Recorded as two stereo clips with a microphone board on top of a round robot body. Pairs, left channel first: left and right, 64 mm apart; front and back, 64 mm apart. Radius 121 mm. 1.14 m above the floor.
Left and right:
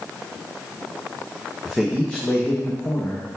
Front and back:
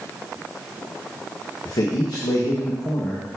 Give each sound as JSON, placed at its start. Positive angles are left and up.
{"t": 1.6, "sound": "a man speaking", "azimuth_deg": 0, "distance_m": 0.9}